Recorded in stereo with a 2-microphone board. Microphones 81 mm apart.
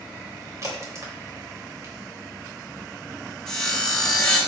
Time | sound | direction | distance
0.6 | a crack | 45° right (ahead or behind) | 3 m
3.5 | sawing | 10° left (ahead or behind) | 2.5 m